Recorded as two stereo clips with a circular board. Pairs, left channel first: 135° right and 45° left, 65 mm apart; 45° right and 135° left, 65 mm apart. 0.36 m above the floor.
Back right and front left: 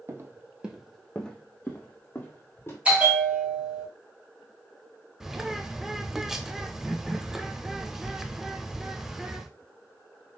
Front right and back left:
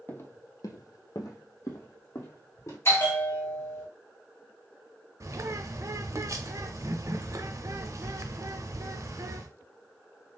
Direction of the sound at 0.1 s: 10° left.